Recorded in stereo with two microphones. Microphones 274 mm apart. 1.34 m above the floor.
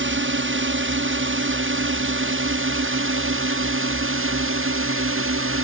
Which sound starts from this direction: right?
A drone, at 0.0 s.